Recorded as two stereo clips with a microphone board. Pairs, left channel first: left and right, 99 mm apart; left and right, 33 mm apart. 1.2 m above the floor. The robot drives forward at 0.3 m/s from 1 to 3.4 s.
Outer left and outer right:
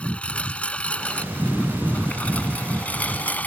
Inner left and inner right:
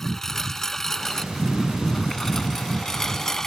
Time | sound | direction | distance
0.0 | a lawn mower | 10° left (ahead or behind) | ?